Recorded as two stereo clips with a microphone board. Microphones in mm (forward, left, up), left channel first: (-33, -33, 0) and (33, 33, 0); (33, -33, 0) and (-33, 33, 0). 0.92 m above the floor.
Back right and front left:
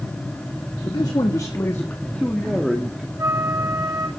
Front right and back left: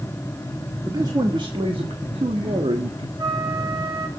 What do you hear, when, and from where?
0.8 s a man speaking: 175° right, 1.7 m; by 3.1 s 125° left, 1.8 m
3.2 s a flute: 95° left, 3 m